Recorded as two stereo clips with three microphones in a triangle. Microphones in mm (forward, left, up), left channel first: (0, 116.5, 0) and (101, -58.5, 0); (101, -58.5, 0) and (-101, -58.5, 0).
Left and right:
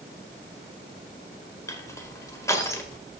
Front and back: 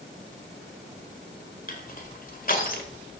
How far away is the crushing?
About 1.5 m.